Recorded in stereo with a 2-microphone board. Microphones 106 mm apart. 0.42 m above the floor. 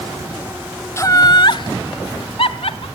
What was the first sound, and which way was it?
Laughter, 25° left (ahead or behind).